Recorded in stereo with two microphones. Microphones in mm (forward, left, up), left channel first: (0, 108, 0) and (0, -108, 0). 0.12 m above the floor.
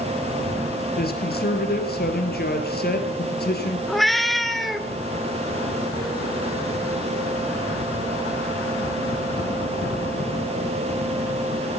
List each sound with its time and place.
1.0 s a woman speaking: 45° left (ahead or behind), 2.5 m
3.9 s a cat meowing: centre (ahead or behind), 1.1 m